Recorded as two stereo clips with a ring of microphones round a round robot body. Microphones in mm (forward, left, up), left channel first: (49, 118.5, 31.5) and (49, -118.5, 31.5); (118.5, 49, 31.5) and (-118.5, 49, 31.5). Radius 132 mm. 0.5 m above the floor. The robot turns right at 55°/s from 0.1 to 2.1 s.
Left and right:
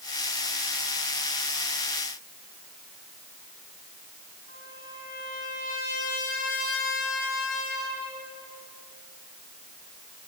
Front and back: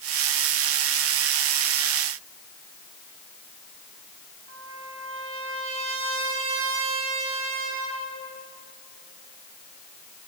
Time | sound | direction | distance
4.5 | a trumpet | 150° left | 4 m